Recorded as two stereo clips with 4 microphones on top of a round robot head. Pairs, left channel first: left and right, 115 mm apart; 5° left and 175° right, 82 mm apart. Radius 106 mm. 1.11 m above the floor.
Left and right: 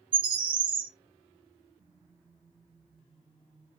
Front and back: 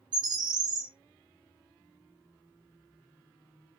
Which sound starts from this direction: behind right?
A bird, at 0.1 s.